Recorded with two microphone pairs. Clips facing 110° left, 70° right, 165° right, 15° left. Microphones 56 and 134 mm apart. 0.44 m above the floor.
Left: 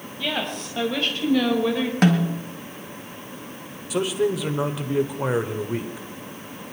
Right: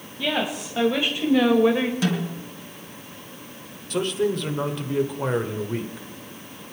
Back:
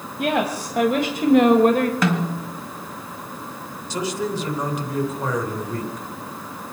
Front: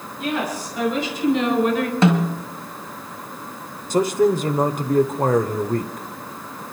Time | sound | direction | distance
0.2 | a woman speaking | 155° right | 2.5 m
2.0 | a snare drum | 80° left | 1.8 m
3.9 | a man speaking | 25° left | 1.2 m